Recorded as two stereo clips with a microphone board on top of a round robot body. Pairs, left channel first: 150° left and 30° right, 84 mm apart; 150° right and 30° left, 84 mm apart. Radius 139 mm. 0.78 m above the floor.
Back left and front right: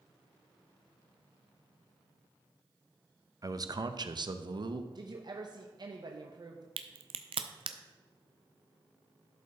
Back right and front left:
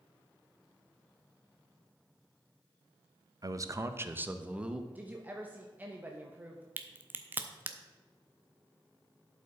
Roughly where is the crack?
Ahead right.